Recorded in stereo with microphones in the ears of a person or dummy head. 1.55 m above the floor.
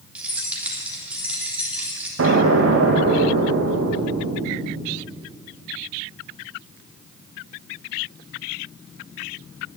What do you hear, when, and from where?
0.1 s keys jangling: 10° right (ahead or behind), 3 m
2.2 s an explosion: 85° right, 1.6 m